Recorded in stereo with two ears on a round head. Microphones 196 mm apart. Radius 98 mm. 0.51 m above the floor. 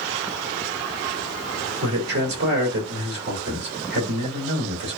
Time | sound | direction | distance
1.8 | a man speaking | 50° right (ahead or behind) | 1.5 m